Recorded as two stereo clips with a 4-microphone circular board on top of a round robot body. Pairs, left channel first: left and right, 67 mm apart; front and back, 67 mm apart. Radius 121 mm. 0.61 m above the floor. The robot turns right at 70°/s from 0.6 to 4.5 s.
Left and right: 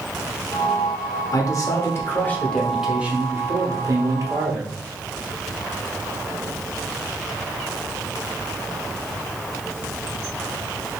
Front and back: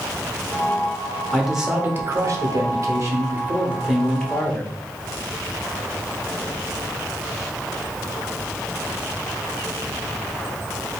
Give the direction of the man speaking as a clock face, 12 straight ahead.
9 o'clock.